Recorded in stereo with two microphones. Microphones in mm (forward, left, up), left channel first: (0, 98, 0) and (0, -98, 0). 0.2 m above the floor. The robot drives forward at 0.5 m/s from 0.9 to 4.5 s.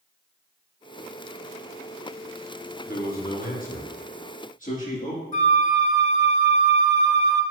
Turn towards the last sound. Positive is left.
turn(degrees=40)  # may be behind; listen again after turning